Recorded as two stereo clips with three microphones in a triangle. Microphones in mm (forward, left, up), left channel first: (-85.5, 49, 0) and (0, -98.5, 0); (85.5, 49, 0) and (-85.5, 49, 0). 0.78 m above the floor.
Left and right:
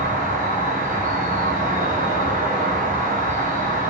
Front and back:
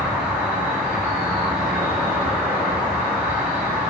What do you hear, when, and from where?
0.0 s an insect: 95° right, 1.0 m